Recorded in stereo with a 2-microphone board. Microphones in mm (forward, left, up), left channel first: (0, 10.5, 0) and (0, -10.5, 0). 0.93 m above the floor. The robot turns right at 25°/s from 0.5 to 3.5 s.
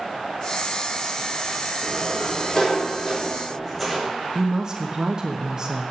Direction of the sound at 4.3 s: 30° right (ahead or behind).